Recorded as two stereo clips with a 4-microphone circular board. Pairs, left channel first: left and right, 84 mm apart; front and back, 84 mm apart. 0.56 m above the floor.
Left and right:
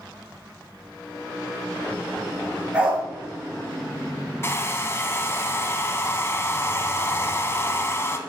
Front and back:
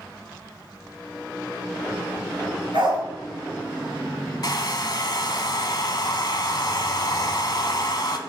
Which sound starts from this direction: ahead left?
A hair dryer, at 4.4 s.